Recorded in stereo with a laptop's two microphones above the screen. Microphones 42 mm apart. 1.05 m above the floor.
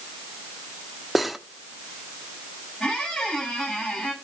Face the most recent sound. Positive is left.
turn(degrees=20)  # may be behind; listen again after turning